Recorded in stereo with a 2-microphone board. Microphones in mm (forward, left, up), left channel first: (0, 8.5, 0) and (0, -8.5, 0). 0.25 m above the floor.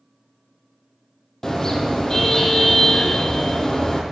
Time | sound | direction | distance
1.4 | a car horn | 30° left (ahead or behind) | 3.5 m